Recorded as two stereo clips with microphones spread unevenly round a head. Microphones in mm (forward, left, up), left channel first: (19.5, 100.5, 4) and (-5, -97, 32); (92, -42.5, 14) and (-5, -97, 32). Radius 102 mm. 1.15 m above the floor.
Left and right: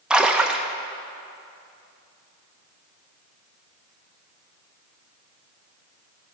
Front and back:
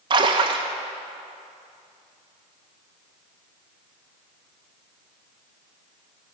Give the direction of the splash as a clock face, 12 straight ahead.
6 o'clock.